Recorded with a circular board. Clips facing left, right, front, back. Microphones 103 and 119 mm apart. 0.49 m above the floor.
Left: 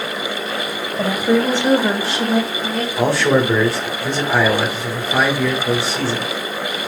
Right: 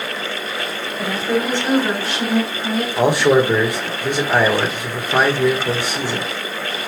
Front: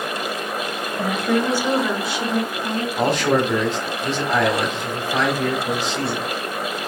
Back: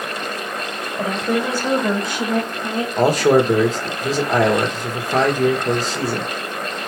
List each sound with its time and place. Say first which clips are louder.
1.0 s a woman speaking: left 4 dB, even; 110° left, 1.9 m; by 2.9 s 160° left, 1.0 m
3.0 s a man speaking: right 2 dB, back 5 dB; 155° right, 1.3 m